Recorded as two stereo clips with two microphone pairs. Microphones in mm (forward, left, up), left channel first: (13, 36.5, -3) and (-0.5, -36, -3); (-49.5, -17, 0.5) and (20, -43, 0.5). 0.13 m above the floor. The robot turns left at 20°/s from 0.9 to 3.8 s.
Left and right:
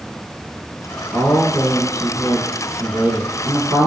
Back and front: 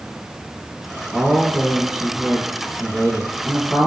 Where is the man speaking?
95° right, 1.5 m; by 3.9 s 150° right, 1.5 m.